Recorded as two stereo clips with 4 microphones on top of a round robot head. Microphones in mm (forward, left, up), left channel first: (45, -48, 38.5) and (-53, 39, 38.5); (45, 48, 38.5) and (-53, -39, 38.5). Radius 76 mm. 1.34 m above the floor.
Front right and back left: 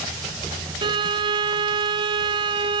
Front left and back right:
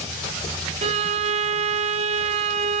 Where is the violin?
170° right, 0.7 m.